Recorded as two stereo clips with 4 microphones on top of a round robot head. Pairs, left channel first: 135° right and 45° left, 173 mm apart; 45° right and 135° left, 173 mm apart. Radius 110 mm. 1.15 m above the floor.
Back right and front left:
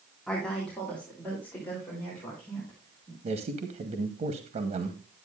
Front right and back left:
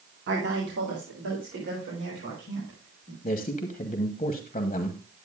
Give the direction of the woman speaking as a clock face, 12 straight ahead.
7 o'clock.